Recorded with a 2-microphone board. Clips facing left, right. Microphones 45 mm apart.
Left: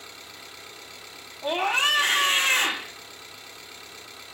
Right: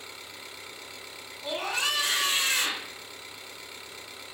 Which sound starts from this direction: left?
A scream, at 1.4 s.